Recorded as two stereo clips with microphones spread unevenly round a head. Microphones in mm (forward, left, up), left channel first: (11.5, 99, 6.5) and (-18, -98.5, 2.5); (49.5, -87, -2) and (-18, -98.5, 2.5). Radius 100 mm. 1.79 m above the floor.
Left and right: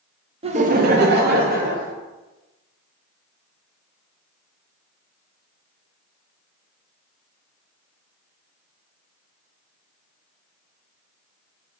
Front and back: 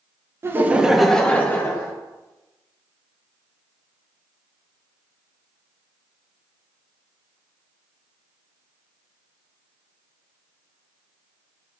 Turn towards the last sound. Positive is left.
turn(degrees=-50)